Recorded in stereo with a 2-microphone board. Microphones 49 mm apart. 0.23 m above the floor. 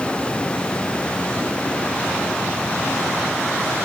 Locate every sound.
Only background noise.